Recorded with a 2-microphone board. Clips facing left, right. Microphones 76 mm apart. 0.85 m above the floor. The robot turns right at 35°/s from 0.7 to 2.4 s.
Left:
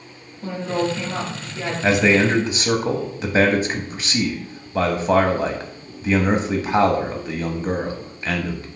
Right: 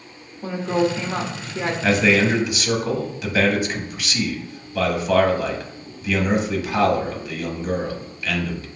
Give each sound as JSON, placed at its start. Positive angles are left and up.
{"t": 0.4, "sound": "a woman speaking", "azimuth_deg": -160, "distance_m": 1.2}
{"t": 1.8, "sound": "a man speaking", "side_deg": 15, "distance_m": 0.9}